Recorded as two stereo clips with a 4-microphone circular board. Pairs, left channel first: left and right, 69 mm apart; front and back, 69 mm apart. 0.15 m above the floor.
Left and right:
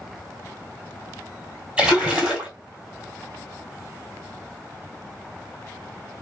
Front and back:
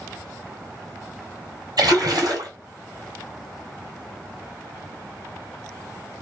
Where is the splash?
165° right, 1.2 m.